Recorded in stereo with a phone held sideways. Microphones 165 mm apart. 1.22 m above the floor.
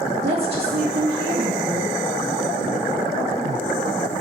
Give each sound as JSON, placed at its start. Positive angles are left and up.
{"t": 0.2, "sound": "a woman speaking", "side_deg": -80, "distance_m": 2.5}